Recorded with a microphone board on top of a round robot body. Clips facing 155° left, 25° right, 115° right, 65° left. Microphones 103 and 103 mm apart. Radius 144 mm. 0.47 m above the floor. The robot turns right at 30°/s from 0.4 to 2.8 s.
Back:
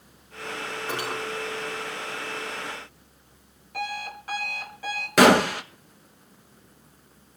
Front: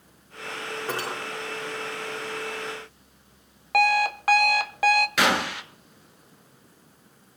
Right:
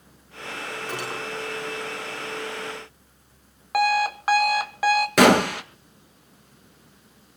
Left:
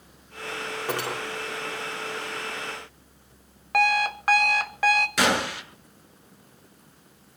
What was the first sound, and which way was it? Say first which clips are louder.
Cutlery clinking: even, left 4 dB; 25° left.